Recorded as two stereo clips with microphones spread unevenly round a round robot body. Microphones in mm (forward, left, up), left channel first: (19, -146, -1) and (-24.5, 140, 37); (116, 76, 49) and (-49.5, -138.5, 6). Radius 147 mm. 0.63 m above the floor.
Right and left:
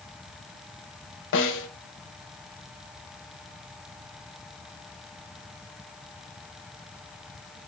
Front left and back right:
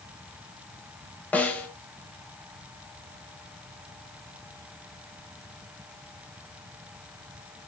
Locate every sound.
1.3 s a snare drum: 30° right, 0.8 m